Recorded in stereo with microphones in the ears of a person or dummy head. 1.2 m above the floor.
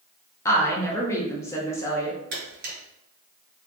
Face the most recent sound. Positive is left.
turn(degrees=-45)  # may be behind; listen again after turning